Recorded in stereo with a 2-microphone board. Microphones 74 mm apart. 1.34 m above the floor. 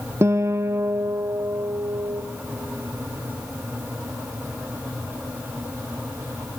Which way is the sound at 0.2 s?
40° right (ahead or behind).